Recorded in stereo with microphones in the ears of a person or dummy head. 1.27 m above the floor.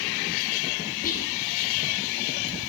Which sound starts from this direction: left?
Whispering, at 1.0 s.